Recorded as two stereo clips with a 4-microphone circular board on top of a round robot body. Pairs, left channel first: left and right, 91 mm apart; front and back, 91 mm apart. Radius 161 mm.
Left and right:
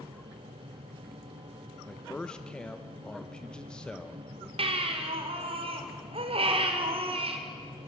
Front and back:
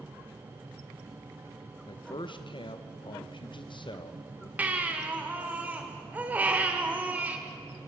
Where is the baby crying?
105° right, 2 m.